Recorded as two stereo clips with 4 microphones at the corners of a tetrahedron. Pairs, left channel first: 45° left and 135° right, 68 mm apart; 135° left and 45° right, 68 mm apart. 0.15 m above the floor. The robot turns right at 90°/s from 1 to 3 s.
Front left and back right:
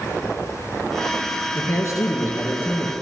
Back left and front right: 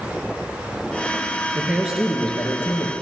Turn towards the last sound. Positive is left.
turn(degrees=130)